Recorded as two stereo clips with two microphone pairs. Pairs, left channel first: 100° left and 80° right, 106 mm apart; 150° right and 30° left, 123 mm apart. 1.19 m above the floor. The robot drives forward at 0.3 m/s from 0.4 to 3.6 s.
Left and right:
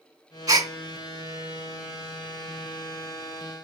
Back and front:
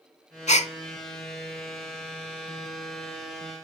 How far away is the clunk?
I don't hear a clunk.